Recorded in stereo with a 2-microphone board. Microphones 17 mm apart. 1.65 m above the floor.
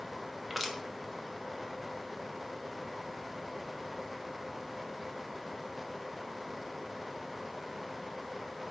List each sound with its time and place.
0.5 s crushing: 10° right (ahead or behind), 1.0 m